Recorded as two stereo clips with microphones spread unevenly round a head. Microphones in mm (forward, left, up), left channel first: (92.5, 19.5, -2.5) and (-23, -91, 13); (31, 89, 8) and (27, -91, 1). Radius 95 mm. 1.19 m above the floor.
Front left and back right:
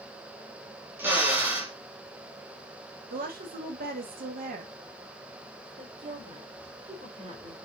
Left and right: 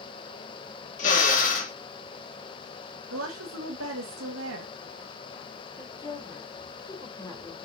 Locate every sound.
1.0 s a drill: 145° left, 1.9 m
3.1 s a woman speaking: 105° right, 2 m
5.8 s a woman speaking: 160° left, 4 m